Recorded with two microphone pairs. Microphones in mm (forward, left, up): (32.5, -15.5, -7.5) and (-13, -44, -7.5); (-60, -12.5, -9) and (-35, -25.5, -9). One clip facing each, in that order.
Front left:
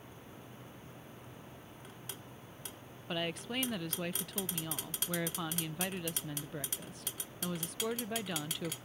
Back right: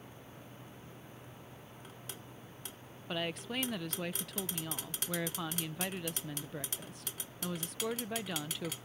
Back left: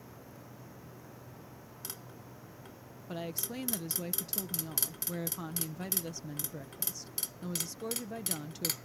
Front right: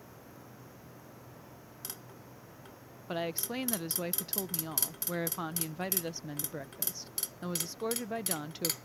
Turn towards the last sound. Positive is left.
turn(degrees=-60)